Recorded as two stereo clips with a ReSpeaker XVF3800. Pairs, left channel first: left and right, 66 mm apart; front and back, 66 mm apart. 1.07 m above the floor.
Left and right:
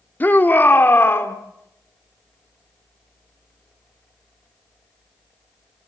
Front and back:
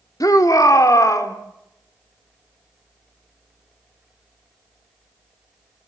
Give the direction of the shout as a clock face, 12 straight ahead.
11 o'clock.